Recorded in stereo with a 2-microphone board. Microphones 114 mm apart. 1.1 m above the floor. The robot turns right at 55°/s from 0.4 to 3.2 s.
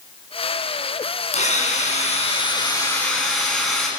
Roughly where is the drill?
Left.